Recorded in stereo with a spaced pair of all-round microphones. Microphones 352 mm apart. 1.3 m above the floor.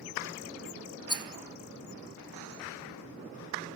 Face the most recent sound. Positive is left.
turn(degrees=10)  # may be behind; listen again after turning